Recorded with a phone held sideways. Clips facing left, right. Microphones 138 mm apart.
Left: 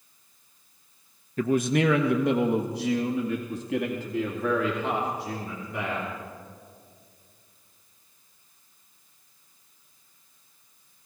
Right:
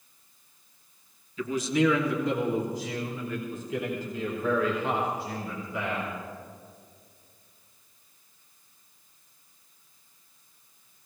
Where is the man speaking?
50° left (ahead or behind), 0.8 m; by 6.1 s 75° left (ahead or behind), 3.5 m.